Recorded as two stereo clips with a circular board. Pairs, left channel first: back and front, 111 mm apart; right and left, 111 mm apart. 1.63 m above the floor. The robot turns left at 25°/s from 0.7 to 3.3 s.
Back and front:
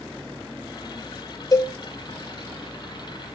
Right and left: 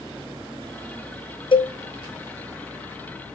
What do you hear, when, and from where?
1.5 s a cowbell: 125° right, 0.7 m; by 1.8 s 130° right, 0.7 m